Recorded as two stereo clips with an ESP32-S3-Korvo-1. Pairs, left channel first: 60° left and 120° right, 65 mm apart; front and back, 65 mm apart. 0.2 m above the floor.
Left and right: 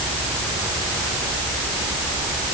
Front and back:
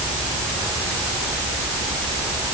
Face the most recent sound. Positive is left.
No sound to turn to.